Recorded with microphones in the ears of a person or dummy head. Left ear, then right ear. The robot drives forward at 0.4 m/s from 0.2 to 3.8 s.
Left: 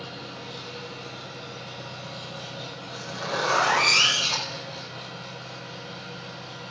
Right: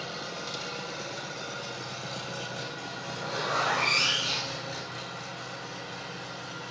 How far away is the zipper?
About 5 m.